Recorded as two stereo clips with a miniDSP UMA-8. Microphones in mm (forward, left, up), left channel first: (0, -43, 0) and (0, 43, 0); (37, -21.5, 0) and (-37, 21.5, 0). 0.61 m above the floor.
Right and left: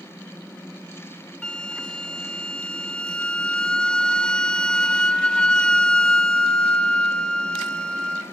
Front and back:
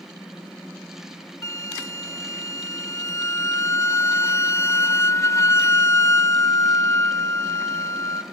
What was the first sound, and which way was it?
A flute, 20° right.